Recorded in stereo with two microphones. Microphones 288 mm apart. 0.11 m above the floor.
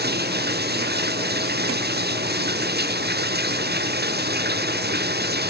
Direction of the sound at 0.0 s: 35° right (ahead or behind).